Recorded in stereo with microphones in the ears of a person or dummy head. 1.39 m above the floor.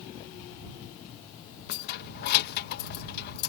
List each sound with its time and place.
1.7 s keys jangling: 60° left (ahead or behind)